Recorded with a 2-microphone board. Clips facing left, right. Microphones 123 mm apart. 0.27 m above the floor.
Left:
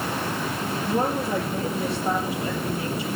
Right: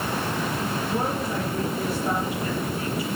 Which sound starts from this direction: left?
A woman speaking, at 0.8 s.